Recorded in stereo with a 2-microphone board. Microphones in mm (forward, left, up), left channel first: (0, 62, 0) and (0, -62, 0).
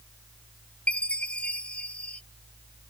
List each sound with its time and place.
0.9 s a chime: 10° left (ahead or behind)